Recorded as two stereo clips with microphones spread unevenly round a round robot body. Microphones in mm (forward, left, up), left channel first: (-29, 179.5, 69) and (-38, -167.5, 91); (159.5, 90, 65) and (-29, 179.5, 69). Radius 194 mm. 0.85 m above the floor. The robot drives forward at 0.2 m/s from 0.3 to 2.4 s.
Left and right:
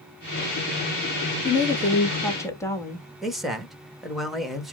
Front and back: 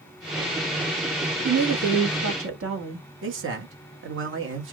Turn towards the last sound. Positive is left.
turn(degrees=180)